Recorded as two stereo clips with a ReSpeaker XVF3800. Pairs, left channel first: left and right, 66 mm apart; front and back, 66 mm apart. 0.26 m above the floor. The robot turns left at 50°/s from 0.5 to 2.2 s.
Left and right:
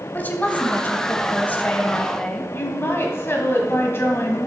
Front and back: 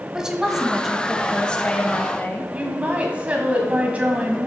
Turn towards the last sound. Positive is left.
turn(degrees=120)